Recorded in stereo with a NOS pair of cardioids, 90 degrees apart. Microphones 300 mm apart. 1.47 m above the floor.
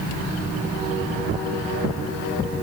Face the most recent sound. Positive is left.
No sound to turn to.